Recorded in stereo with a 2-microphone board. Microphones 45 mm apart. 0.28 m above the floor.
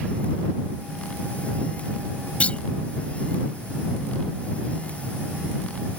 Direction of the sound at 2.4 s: 30° left (ahead or behind).